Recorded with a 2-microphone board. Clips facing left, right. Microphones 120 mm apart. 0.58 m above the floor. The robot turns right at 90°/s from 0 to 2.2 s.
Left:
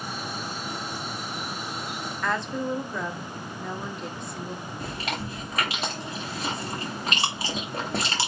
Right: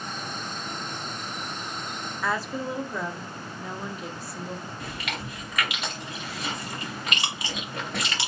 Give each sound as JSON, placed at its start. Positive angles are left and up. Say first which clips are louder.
{"t": 2.2, "sound": "a woman speaking", "louder": "left 1 dB", "side_deg": -5, "distance_m": 0.8}
{"t": 4.8, "sound": "chewing", "louder": "left 3 dB", "side_deg": 35, "distance_m": 1.6}